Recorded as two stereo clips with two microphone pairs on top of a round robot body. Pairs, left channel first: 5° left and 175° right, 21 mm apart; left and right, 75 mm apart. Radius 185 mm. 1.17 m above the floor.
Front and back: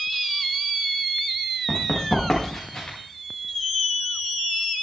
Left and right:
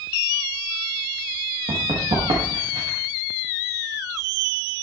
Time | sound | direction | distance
1.7 | running footsteps | 65° right | 5.5 m